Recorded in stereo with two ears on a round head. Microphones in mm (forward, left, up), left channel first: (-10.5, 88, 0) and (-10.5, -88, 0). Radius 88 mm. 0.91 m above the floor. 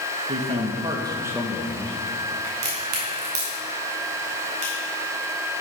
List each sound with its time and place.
0.3 s a man speaking: 40° right (ahead or behind), 1.2 m; by 2.3 s 25° left (ahead or behind), 0.9 m
2.4 s a crack: 75° right (ahead or behind), 3.5 m